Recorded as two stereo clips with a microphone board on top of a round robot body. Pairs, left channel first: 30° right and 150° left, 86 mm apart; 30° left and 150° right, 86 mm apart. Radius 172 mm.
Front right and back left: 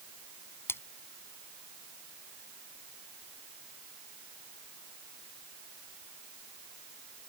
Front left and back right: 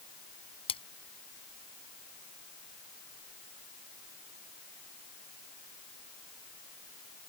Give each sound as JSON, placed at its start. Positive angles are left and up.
{"t": 0.7, "sound": "a splash", "azimuth_deg": 35}